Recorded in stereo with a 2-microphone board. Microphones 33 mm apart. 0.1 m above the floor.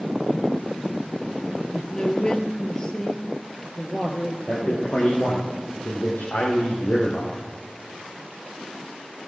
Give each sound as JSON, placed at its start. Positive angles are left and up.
{"t": 1.7, "sound": "a man speaking", "side_deg": 30, "distance_m": 1.8}
{"t": 4.5, "sound": "a man speaking", "side_deg": 55, "distance_m": 3.0}